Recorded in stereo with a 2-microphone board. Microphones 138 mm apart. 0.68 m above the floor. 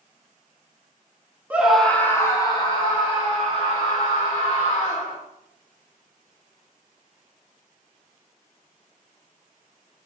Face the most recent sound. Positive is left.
turn(degrees=50)  # may be behind; listen again after turning